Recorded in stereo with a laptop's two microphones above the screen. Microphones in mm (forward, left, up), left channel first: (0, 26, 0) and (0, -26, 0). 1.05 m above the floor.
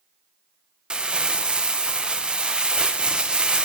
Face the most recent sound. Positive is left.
turn(degrees=-20)  # may be behind; listen again after turning